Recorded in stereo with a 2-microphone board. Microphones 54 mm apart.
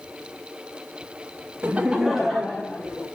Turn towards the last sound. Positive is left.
turn(degrees=10)  # may be behind; listen again after turning